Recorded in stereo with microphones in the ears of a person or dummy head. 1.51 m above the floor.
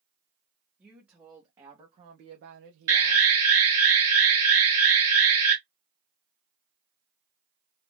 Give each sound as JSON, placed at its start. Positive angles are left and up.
{"t": 0.8, "sound": "a woman speaking", "side_deg": -5, "distance_m": 1.2}
{"t": 2.9, "sound": "an alarm", "side_deg": -15, "distance_m": 1.3}